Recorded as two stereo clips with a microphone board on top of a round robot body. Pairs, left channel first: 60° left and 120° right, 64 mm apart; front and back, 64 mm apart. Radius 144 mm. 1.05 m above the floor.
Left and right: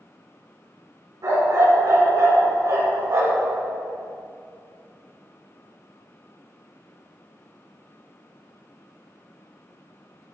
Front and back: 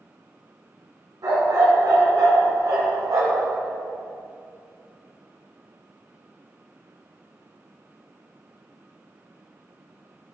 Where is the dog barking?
160° right, 3 m.